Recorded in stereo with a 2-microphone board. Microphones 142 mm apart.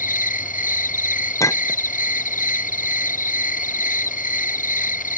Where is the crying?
I don't hear crying.